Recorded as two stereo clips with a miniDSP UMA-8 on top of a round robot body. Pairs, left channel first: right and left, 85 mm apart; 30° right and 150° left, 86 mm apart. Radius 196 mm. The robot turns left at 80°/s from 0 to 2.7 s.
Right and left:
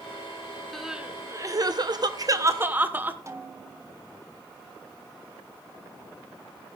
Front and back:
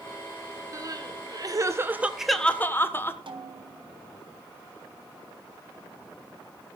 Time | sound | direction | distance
0.7 | crying | 175° right | 2 m
3.3 | a snare drum | 145° left | 3 m